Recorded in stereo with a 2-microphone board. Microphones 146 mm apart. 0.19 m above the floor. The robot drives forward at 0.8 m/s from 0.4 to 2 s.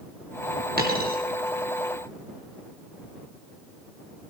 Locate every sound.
0.8 s a dropped coin: 80° right, 2.5 m; by 1.2 s 75° right (ahead or behind), 2.5 m